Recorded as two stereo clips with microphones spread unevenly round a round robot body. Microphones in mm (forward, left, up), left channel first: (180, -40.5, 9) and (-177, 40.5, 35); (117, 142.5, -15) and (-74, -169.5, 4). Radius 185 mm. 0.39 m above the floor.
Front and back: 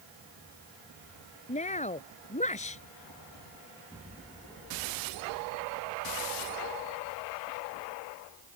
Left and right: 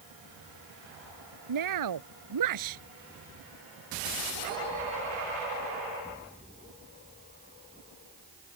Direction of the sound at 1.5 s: 85° right.